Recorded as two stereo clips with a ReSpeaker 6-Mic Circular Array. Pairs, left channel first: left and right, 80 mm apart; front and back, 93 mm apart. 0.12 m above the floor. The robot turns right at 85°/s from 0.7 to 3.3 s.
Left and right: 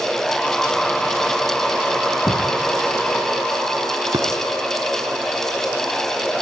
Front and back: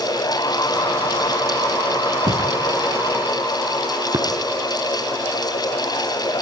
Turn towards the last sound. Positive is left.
turn(degrees=-145)